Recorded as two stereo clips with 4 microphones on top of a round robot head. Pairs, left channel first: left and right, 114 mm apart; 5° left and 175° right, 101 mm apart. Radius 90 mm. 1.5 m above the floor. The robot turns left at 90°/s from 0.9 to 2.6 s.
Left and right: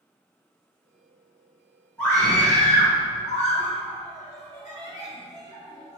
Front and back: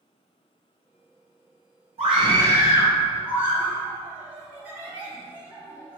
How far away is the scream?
About 2.5 m.